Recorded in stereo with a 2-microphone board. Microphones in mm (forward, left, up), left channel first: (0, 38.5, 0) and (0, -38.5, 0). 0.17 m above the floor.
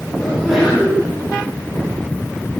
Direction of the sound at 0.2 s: Centre (ahead or behind).